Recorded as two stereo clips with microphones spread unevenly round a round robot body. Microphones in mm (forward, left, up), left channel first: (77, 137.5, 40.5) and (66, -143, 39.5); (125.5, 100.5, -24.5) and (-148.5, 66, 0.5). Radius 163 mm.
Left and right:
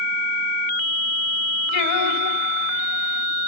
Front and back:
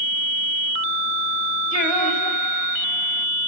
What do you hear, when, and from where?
1.7 s singing: 70° left, 2.5 m